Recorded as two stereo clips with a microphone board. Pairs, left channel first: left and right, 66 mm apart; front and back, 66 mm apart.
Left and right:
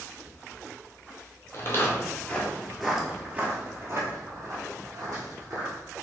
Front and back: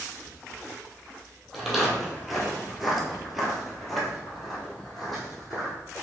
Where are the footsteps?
95° left, 1.1 m; by 5.7 s 90° right, 1.9 m.